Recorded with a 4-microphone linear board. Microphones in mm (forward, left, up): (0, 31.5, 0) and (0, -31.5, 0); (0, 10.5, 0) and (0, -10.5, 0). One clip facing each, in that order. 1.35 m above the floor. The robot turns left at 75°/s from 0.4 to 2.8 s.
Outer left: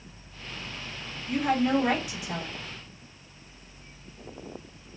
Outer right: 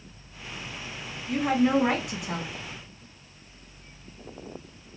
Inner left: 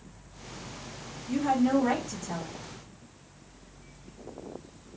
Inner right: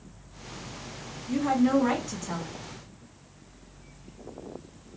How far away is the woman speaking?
About 1.9 m.